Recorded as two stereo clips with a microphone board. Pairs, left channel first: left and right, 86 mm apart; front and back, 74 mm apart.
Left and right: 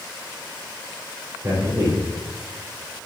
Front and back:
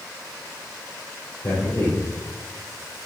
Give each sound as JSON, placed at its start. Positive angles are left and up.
{"t": 1.4, "sound": "a man speaking", "azimuth_deg": -35, "distance_m": 3.0}